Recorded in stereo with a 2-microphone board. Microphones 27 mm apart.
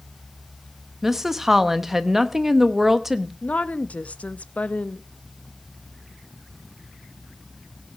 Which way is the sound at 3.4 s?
60° left (ahead or behind).